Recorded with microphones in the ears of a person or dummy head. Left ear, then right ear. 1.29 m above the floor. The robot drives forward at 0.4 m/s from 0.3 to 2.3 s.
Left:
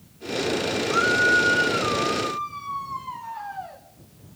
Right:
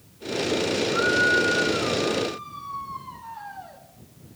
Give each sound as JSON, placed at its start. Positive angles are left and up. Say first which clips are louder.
{"t": 0.9, "sound": "a scream", "louder": "left 2 dB", "side_deg": 30, "distance_m": 2.0}